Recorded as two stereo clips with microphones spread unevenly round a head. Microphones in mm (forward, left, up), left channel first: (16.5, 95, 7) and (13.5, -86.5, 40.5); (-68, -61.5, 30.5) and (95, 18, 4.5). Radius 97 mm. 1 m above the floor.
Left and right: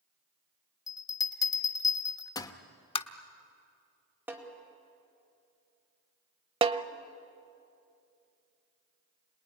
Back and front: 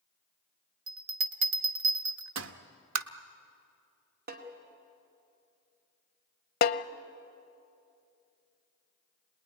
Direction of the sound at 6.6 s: 150° right.